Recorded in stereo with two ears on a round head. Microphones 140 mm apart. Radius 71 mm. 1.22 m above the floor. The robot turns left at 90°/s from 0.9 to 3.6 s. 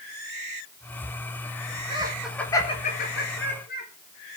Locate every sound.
1.9 s laughter: 35° right (ahead or behind), 3.5 m; by 3.9 s 65° left (ahead or behind), 3.5 m